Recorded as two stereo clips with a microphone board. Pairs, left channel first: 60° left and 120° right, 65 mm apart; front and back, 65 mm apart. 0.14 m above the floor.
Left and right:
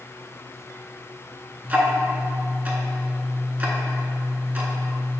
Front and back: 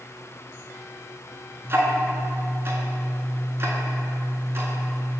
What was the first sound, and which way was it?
Ticking, 170° right.